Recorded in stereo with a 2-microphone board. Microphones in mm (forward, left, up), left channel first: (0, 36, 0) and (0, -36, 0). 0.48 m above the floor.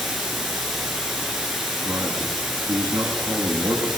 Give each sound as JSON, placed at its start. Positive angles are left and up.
{"t": 0.0, "sound": "running water", "side_deg": -5, "distance_m": 7.0}
{"t": 1.9, "sound": "a man speaking", "side_deg": -45, "distance_m": 7.0}